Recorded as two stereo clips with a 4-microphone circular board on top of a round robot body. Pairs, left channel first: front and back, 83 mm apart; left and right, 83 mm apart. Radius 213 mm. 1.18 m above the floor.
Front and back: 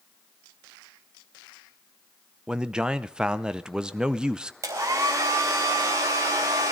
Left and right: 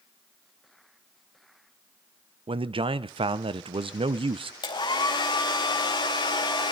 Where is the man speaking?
100° right, 0.7 m.